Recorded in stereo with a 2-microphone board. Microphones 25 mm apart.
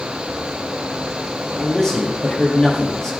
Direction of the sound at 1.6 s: 10° left (ahead or behind).